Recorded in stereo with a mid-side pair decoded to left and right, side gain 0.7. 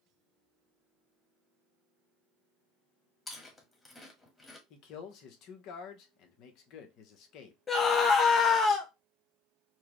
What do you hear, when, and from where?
3.3 s chewing: 20° left, 1.6 m
4.7 s a man speaking: 60° left, 1.1 m
7.7 s a scream: 30° left, 0.8 m